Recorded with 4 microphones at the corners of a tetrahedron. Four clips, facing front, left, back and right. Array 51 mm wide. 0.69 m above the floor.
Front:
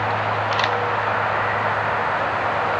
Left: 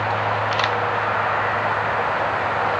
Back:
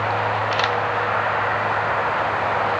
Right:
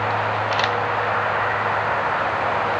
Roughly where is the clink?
I don't hear a clink.